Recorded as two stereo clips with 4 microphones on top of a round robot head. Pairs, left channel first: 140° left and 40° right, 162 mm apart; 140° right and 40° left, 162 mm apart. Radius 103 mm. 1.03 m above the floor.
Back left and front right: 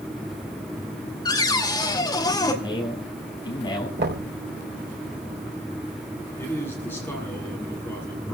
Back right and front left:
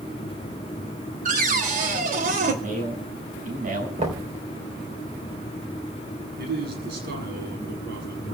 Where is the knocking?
15° right, 3.5 m.